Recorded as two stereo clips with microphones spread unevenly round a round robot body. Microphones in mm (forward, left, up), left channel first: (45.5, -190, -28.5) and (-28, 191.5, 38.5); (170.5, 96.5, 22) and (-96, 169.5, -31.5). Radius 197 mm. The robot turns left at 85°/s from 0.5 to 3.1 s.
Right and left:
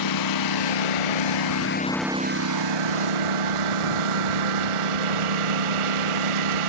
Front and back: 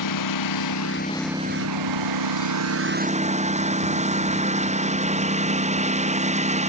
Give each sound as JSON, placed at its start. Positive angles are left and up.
{"t": 0.0, "sound": "a lawn mower", "azimuth_deg": -40}